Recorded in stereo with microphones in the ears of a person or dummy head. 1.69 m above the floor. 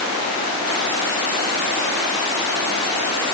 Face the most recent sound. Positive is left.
No sound to turn to.